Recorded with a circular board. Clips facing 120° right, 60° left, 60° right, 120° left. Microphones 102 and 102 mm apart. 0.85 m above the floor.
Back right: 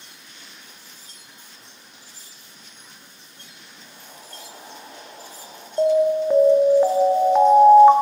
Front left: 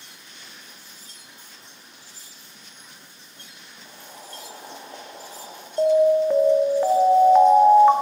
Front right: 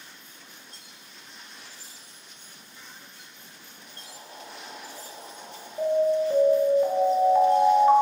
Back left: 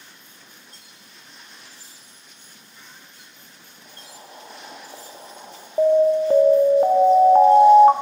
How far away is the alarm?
About 0.6 m.